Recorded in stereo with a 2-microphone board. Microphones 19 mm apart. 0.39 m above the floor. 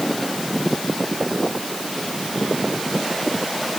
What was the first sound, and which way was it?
Only background noise.